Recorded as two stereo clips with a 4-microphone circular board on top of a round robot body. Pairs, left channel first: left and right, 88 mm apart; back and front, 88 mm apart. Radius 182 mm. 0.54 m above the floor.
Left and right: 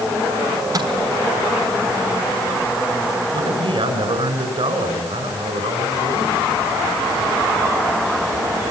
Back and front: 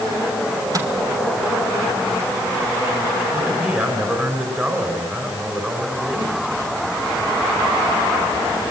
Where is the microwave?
45° right, 4.5 m.